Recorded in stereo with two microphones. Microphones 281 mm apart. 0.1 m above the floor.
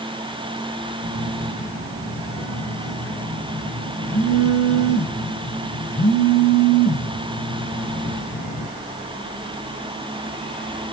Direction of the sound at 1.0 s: 55° left (ahead or behind).